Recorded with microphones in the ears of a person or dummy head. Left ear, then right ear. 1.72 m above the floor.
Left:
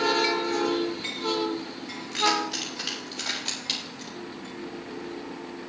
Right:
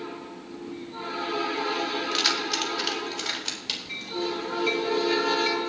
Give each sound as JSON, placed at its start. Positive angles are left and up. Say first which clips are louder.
{"t": 2.1, "sound": "keys jangling", "louder": "left 2 dB", "side_deg": -40, "distance_m": 1.9}